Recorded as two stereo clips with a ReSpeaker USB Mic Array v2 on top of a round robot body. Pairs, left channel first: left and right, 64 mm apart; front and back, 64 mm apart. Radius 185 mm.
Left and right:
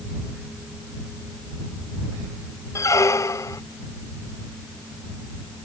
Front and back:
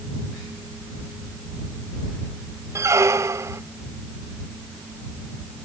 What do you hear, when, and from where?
2.8 s a squeak: 135° left